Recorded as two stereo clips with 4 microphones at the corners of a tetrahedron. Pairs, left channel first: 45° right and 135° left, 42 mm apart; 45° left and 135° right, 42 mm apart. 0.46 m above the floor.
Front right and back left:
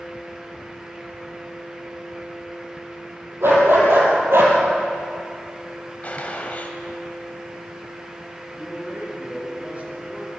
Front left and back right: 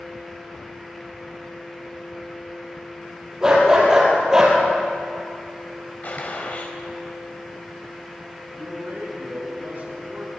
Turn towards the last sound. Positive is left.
turn(degrees=-175)